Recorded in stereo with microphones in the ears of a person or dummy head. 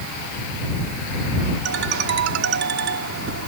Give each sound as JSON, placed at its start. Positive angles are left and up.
{"t": 1.6, "sound": "a ringtone", "side_deg": -70}